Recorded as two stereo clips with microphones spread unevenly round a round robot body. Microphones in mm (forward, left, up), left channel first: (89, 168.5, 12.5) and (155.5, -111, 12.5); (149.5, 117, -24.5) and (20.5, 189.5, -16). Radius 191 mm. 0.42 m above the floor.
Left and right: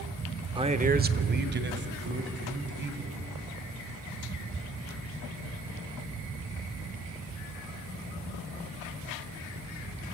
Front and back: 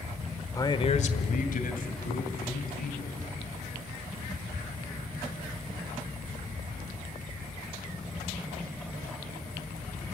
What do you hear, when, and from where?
0.6 s a man speaking: 30° right, 0.8 m; by 3.2 s 25° right, 3.5 m